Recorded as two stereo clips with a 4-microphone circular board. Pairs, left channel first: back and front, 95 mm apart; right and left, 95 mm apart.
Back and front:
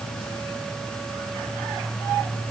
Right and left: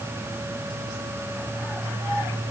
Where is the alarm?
I don't hear an alarm.